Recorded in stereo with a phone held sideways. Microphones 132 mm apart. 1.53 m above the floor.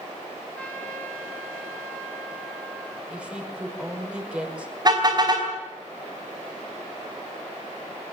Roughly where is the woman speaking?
Centre.